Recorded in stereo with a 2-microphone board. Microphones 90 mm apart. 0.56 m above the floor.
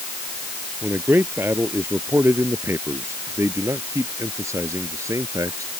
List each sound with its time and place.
0.8 s a man speaking: 25° right (ahead or behind); by 5.7 s 35° right (ahead or behind)